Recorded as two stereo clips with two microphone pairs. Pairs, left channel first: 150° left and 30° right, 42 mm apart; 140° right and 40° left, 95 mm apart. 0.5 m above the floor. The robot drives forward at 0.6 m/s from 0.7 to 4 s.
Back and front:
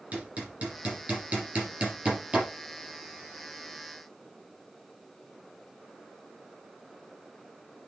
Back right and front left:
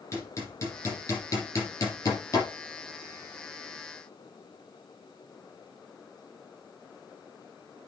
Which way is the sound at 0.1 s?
85° right.